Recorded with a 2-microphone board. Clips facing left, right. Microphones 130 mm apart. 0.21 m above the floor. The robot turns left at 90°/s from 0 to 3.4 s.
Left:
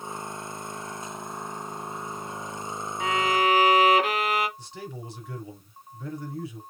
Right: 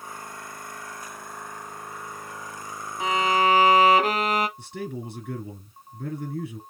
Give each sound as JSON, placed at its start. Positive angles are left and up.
{"t": 3.0, "sound": "a violin", "azimuth_deg": -35, "distance_m": 1.3}
{"t": 4.6, "sound": "a man speaking", "side_deg": -60, "distance_m": 2.0}